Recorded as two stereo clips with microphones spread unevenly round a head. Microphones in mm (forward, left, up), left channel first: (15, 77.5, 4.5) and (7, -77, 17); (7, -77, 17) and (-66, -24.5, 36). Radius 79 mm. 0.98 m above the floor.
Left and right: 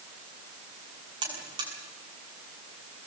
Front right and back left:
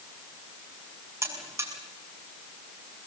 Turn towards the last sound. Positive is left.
turn(degrees=-155)